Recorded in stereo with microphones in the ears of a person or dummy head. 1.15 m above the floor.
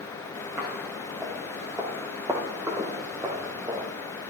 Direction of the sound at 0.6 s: 5° right (ahead or behind).